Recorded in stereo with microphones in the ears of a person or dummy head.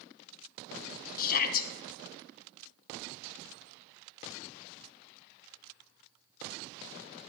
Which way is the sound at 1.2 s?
50° left (ahead or behind).